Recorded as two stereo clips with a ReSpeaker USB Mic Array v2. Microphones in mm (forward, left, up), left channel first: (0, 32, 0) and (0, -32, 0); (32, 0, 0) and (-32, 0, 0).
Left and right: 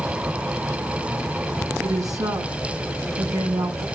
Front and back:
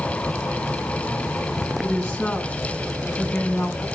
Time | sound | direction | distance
1.8 | a woman speaking | 80° right | 6 m